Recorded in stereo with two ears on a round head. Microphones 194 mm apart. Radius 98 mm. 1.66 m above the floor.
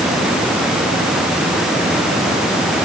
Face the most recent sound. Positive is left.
No sound to turn to.